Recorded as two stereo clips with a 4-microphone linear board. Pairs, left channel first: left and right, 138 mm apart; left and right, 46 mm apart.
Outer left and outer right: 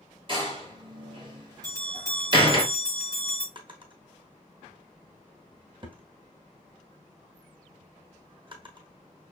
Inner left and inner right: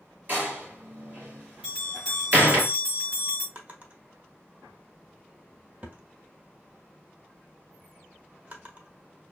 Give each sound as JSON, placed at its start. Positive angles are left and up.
{"t": 0.3, "sound": "a door slam", "side_deg": -35, "distance_m": 2.0}
{"t": 1.6, "sound": "a bell", "side_deg": -30, "distance_m": 4.0}
{"t": 3.5, "sound": "a drawer", "side_deg": -35, "distance_m": 1.0}